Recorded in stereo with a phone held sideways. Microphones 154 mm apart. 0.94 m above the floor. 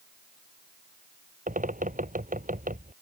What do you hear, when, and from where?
1.5 s a bird: 60° right (ahead or behind)